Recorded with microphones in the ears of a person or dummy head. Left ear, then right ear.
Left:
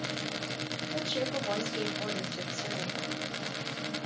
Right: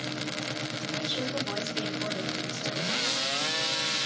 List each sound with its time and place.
0.9 s a woman speaking: 75° left (ahead or behind), 3.5 m